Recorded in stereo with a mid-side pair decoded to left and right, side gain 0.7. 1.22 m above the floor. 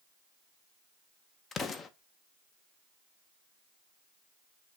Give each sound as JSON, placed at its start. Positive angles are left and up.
{"t": 1.5, "sound": "an explosion", "azimuth_deg": 30, "distance_m": 0.5}